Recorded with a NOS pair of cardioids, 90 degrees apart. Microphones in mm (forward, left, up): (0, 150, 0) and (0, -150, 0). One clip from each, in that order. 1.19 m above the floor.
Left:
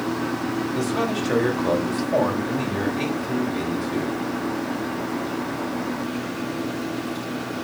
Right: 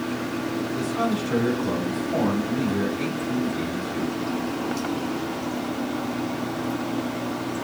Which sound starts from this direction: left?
A man speaking, at 0.7 s.